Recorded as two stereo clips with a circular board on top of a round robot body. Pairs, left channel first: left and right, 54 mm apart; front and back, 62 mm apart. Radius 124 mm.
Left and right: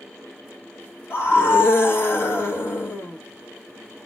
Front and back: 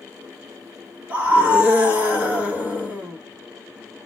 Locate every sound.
1.1 s a scream: 120° left, 1.9 m